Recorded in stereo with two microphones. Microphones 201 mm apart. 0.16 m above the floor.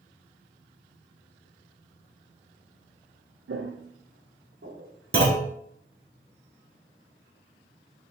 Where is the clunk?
50° right (ahead or behind), 0.8 m.